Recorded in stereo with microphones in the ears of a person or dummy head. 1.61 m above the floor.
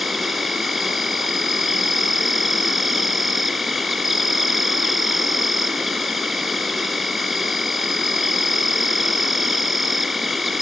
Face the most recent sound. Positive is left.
turn(degrees=0)  # may be behind; listen again after turning